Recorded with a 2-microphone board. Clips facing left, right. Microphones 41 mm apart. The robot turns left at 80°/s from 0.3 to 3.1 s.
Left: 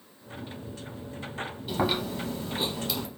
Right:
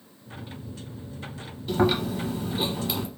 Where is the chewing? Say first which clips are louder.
Right 5 dB; 5° left (ahead or behind), 1.2 m; by 3.1 s 20° right (ahead or behind), 1.2 m.